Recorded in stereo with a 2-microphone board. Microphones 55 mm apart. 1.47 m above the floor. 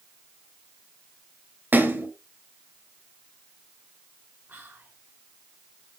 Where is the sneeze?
No sneeze in this recording.